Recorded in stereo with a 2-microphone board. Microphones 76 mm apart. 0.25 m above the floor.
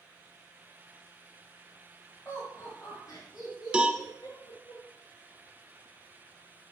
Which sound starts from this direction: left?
Laughter, at 2.2 s.